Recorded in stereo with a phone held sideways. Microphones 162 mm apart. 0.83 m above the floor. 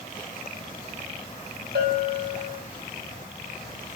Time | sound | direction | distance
1.8 | a bell | 85° right | 1.6 m